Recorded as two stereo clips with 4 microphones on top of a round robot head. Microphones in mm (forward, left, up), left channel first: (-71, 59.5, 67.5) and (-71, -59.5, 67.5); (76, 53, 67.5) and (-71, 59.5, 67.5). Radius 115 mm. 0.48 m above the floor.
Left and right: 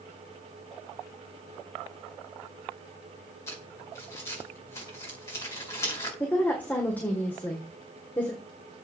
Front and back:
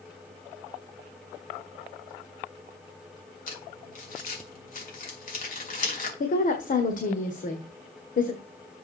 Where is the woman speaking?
15° left, 1.6 m.